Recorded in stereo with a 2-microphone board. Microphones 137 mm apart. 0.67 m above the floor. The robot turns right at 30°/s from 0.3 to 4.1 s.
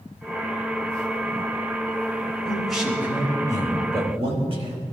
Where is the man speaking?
175° left, 3.5 m; by 4.8 s 135° right, 3.5 m.